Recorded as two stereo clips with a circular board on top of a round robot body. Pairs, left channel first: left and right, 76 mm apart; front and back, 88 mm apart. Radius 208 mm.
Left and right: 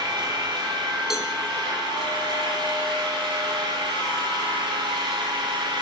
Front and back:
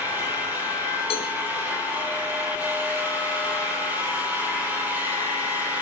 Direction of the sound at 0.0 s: 110° right.